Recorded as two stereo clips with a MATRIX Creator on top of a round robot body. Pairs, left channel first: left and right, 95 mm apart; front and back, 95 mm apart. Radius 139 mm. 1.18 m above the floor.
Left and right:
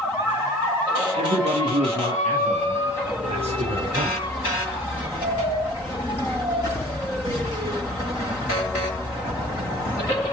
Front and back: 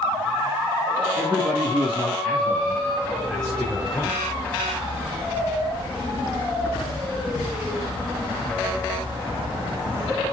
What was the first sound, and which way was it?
A man speaking, 105° right.